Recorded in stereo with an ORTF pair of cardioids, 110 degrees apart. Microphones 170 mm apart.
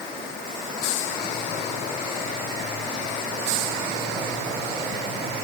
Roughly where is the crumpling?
I don't hear crumpling.